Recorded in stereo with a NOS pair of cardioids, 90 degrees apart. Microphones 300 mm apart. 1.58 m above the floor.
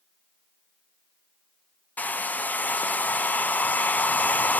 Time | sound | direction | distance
2.0 | a hair dryer | 5° left | 0.6 m